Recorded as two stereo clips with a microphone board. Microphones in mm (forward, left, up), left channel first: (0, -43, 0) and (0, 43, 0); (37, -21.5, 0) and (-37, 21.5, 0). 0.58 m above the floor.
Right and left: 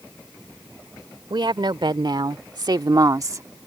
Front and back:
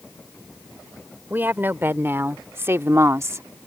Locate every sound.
1.3 s a woman speaking: 85° left; by 3.5 s 120° left